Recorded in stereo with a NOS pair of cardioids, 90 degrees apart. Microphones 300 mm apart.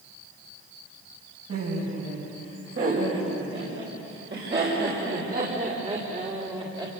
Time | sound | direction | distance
1.5 | laughter | 50° right | 9 m